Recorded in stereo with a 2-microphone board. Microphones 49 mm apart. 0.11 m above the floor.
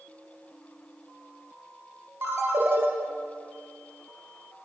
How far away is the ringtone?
About 1.0 m.